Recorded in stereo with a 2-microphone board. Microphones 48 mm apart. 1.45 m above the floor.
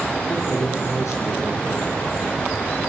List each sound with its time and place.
0.3 s a man speaking: 85° left, 3.5 m